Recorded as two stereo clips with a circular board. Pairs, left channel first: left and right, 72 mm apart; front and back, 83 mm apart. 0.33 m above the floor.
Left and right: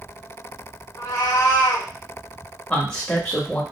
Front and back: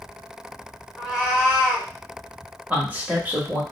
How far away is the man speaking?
About 1.0 m.